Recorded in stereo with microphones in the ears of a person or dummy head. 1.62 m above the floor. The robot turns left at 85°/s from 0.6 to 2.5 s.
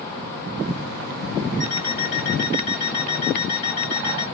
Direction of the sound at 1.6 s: 130° right.